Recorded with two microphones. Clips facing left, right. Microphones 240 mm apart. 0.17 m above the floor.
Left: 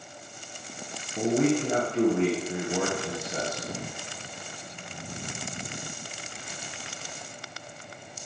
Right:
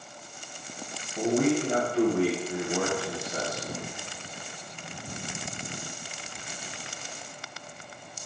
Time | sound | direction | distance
1.2 | a man speaking | 20° left (ahead or behind) | 2.0 m